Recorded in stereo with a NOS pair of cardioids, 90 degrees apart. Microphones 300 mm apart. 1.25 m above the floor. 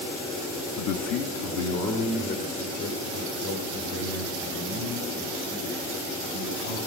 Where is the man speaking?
70° left, 0.9 m; by 6.8 s 75° left, 9 m.